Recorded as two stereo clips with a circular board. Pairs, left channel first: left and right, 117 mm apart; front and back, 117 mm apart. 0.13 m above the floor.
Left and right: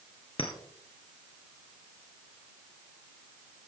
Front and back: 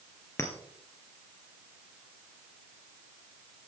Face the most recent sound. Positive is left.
turn(degrees=60)